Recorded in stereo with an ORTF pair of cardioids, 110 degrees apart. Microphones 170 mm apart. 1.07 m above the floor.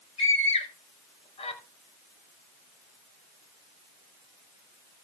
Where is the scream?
35° left, 6.5 m.